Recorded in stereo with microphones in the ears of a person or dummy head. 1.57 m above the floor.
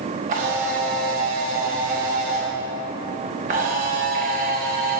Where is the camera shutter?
40° right (ahead or behind), 1.2 m.